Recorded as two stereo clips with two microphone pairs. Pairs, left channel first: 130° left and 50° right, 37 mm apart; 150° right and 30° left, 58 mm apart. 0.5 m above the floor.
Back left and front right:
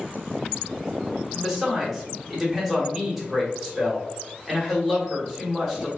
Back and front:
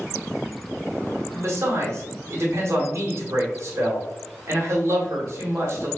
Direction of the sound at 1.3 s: 25° left.